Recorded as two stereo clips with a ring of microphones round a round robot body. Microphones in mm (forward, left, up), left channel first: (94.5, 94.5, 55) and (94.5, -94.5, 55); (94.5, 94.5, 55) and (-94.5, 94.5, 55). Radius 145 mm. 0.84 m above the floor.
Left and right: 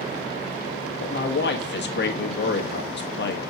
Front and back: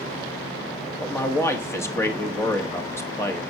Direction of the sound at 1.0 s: 75° left.